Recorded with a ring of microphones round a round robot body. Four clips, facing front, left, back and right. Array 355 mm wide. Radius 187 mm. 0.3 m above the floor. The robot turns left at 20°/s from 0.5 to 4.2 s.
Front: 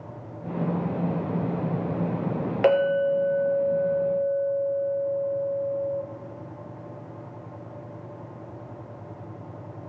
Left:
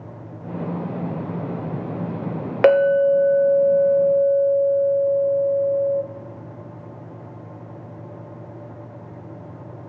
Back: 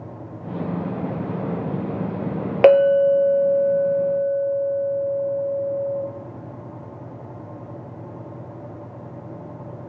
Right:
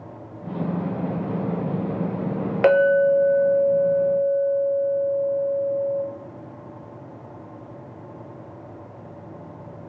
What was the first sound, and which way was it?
A clink, 150° left.